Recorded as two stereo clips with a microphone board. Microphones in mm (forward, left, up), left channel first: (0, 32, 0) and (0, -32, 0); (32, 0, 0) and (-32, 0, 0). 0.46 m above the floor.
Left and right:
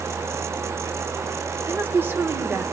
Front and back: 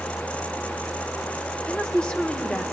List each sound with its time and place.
1.7 s a woman speaking: 65° right, 1.1 m